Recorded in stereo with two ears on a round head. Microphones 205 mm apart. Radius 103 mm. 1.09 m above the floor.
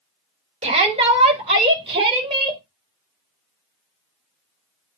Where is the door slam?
No door slam in this recording.